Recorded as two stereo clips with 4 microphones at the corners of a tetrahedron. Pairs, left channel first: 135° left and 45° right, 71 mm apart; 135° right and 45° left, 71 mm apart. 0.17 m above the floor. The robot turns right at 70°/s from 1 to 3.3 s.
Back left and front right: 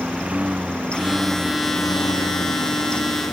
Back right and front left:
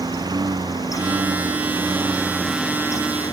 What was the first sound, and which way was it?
A lawn mower, 30° left.